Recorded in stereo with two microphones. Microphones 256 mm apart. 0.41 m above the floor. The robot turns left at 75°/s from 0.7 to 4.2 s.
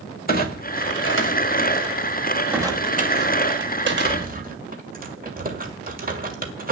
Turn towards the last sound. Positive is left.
turn(degrees=-35)  # may be behind; listen again after turning